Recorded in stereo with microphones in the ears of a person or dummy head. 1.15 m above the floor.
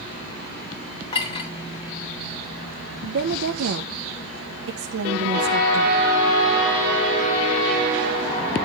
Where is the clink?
30° left (ahead or behind), 3 m.